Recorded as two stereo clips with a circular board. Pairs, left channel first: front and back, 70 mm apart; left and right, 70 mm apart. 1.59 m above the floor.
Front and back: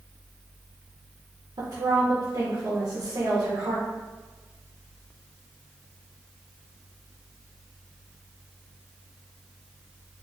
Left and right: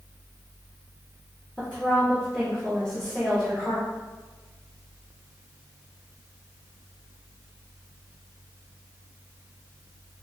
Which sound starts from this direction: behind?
A woman speaking, at 1.6 s.